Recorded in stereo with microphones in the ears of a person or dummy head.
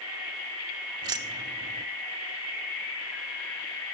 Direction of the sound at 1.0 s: 20° right (ahead or behind).